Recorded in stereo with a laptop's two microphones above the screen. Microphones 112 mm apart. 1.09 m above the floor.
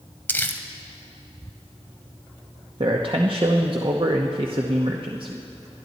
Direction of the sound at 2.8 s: 50° right (ahead or behind).